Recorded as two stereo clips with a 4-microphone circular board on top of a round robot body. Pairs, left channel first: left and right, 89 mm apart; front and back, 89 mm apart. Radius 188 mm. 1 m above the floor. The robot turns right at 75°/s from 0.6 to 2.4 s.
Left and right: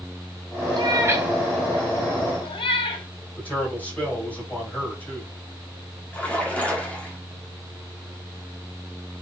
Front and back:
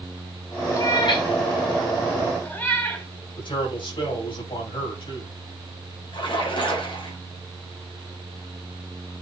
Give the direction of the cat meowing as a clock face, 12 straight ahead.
2 o'clock.